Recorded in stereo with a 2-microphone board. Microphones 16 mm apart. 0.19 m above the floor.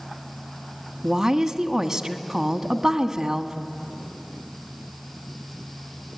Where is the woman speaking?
25° right (ahead or behind), 1.5 m.